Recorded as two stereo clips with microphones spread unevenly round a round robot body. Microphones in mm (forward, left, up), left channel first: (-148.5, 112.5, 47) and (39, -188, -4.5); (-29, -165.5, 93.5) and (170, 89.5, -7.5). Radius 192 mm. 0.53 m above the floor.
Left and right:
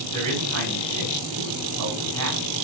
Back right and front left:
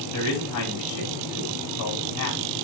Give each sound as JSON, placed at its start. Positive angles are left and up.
{"t": 0.1, "sound": "a man speaking", "azimuth_deg": -90, "distance_m": 4.5}